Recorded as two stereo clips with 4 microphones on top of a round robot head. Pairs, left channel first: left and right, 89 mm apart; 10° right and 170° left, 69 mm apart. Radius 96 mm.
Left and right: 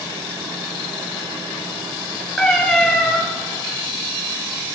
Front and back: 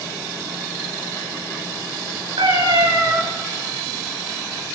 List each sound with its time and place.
2.4 s a cat meowing: 175° left, 5.5 m